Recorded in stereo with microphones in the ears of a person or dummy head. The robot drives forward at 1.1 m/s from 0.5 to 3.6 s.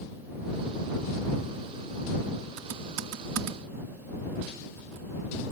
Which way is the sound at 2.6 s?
90° right.